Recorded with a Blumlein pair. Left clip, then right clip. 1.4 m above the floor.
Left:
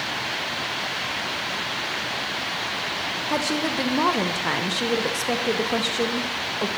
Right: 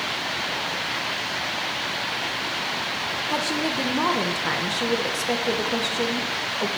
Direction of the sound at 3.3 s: 10° left.